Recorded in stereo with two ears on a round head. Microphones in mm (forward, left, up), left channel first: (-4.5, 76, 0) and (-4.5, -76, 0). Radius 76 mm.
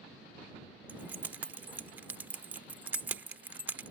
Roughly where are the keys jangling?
Centre.